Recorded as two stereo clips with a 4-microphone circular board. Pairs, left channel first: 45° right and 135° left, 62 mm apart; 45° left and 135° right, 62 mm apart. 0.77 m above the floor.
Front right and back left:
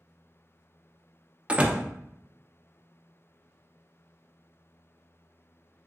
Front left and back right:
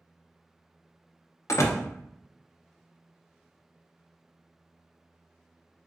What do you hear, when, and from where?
1.5 s a door slam: 65° left, 0.6 m